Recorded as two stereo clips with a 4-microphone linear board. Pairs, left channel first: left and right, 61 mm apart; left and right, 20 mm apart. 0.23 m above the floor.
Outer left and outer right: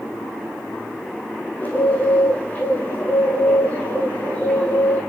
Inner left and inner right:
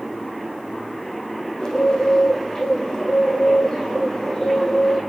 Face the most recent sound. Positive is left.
turn(degrees=25)  # may be behind; listen again after turning